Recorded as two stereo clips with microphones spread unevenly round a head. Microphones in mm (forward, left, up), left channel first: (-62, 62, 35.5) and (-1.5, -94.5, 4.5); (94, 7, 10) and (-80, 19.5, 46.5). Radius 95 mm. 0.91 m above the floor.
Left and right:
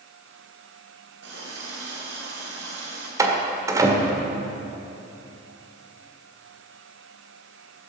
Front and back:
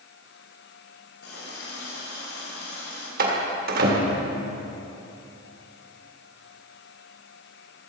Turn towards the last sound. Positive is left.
turn(degrees=-140)